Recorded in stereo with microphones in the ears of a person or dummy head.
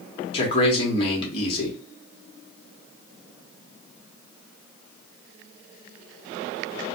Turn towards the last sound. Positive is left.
turn(degrees=30)  # may be behind; listen again after turning